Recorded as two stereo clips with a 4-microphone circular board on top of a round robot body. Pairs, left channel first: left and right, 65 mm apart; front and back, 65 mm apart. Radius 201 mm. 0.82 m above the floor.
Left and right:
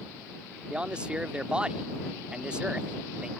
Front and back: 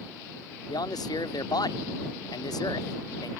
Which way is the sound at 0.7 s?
15° right.